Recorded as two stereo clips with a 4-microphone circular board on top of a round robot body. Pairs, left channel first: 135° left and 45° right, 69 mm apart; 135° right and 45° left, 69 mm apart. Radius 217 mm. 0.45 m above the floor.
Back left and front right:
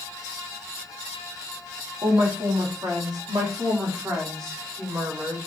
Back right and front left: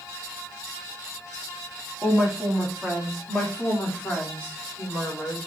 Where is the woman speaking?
35° right, 2 m; by 5.5 s 85° right, 3 m.